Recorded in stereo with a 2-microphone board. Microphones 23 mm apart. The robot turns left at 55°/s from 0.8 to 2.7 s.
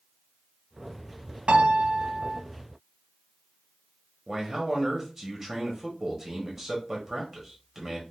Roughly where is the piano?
Right.